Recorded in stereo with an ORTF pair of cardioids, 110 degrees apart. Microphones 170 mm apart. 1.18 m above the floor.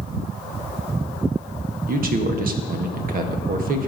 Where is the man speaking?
65° right, 1.3 m.